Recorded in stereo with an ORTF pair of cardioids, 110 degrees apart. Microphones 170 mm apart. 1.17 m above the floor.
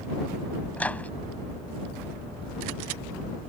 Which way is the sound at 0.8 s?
10° left.